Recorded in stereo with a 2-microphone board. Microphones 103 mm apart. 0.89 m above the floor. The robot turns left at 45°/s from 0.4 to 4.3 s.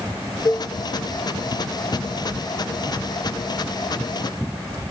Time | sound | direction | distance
0.5 | a cowbell | 40° left (ahead or behind) | 1.1 m